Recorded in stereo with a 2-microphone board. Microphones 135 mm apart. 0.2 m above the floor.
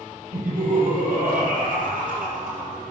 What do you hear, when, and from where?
0.3 s laughter: 70° right (ahead or behind), 5 m; by 2.8 s 75° right (ahead or behind), 5 m